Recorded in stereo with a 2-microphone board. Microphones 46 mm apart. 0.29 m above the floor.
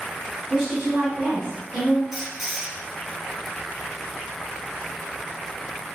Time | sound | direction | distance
0.5 | a woman speaking | 10° right (ahead or behind) | 1.3 m
2.1 | a squeak | centre (ahead or behind) | 0.8 m